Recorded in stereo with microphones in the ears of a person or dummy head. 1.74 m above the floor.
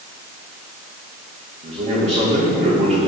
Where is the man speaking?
35° right (ahead or behind), 2.5 m.